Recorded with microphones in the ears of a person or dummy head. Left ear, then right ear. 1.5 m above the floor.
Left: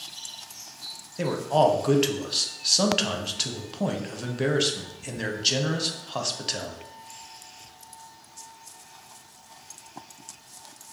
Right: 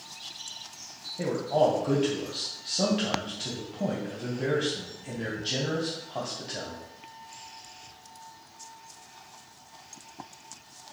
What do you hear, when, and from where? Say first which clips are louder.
1.2 s a man speaking: left 3 dB; 45° left (ahead or behind), 0.7 m